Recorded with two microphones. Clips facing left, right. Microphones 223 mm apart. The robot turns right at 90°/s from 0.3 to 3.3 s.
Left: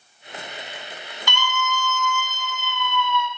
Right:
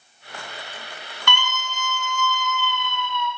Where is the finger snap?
No finger snap in this recording.